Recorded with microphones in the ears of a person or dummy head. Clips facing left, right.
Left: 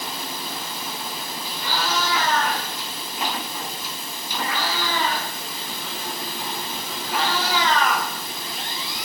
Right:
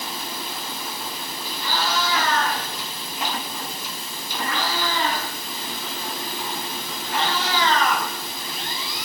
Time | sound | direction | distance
1.6 | a cat meowing | 15° left (ahead or behind) | 9 m